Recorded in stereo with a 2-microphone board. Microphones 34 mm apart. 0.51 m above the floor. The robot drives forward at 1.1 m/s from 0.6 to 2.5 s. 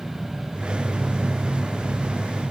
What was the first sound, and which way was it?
Only background noise.